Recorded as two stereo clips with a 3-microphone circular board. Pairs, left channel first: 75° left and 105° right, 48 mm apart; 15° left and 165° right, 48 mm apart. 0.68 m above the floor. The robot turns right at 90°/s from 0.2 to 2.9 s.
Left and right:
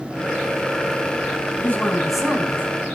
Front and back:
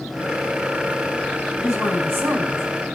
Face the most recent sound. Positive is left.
turn(degrees=-125)